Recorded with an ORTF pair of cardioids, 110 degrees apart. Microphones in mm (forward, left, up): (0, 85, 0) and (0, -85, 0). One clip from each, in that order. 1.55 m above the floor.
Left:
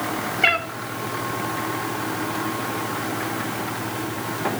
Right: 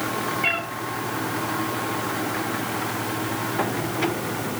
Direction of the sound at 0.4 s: 60° left.